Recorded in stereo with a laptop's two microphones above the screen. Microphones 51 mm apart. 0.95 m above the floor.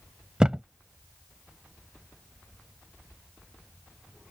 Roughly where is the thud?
Centre.